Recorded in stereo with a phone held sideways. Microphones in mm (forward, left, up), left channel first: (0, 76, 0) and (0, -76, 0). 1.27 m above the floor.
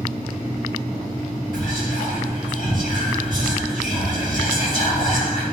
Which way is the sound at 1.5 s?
70° left (ahead or behind).